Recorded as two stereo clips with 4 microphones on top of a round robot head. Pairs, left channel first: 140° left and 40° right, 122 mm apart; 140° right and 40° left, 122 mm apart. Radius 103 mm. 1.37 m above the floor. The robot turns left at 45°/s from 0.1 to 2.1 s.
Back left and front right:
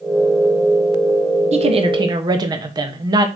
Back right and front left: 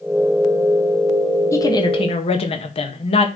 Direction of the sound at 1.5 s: 70° right.